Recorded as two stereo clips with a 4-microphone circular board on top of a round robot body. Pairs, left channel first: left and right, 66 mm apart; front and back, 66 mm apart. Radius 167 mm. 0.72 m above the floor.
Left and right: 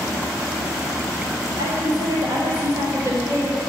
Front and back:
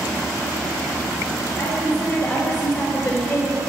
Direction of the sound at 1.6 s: 65° right.